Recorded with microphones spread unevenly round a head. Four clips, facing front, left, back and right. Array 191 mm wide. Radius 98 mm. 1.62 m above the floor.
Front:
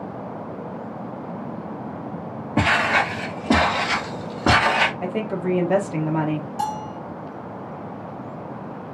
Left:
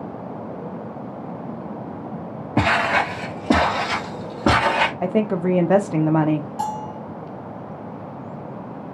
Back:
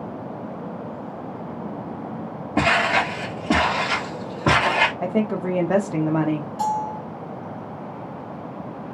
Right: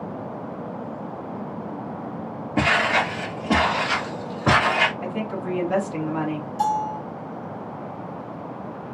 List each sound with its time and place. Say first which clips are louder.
2.6 s footsteps: left 2 dB, even; 95° left, 1.8 m; by 4.9 s 70° left, 2.5 m
5.0 s a woman speaking: left 8 dB, back 2 dB; 105° left, 0.7 m
6.6 s a bell: right 4 dB, back 3 dB; 65° left, 1.8 m